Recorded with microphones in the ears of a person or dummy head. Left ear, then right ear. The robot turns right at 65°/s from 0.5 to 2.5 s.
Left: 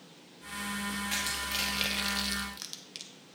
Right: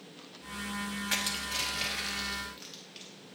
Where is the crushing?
15° right (ahead or behind), 1.0 m; by 3.1 s 60° left (ahead or behind), 1.0 m.